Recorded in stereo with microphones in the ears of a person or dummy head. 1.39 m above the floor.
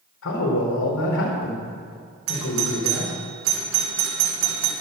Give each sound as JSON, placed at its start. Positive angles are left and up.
{"t": 0.2, "sound": "a man speaking", "side_deg": 75, "distance_m": 4.5}
{"t": 2.3, "sound": "a doorbell", "side_deg": -70, "distance_m": 2.5}